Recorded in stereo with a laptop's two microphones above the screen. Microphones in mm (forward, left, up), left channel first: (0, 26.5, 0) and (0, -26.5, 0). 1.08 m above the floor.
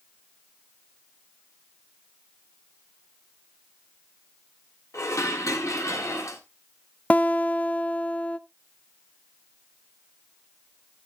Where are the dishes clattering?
75° left (ahead or behind), 1.7 m.